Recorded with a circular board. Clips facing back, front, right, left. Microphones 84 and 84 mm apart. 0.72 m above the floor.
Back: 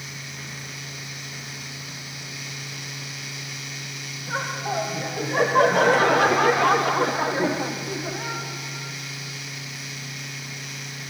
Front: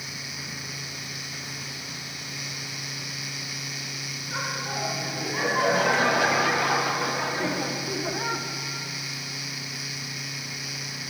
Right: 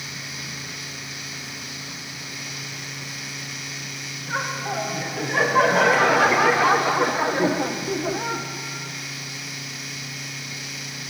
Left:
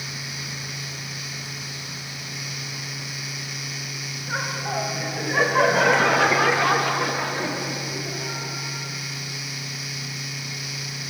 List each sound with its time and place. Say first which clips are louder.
4.3 s laughter: back 5 dB, right 1 dB; 175° left, 3.5 m; by 8.4 s 65° right, 1.1 m